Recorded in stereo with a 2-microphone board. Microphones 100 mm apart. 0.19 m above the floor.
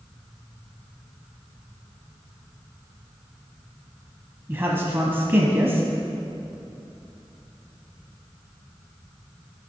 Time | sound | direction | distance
4.5 | a man speaking | 20° right (ahead or behind) | 1.0 m